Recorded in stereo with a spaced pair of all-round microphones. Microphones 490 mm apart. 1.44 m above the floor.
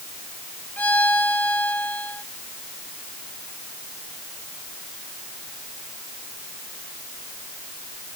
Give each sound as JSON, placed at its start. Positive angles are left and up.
{"t": 0.8, "sound": "a violin", "side_deg": 5}